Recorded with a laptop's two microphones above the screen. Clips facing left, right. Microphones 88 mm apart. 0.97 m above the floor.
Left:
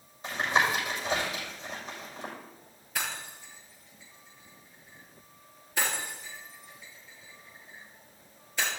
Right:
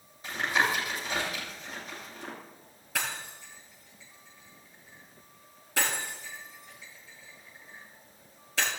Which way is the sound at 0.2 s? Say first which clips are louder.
Left 1 dB; 30° left (ahead or behind).